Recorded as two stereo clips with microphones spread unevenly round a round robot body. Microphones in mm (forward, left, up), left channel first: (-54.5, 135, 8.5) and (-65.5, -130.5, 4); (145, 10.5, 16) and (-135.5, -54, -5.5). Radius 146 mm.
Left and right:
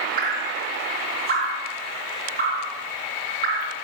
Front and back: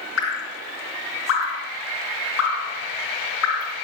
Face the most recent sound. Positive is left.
turn(degrees=-30)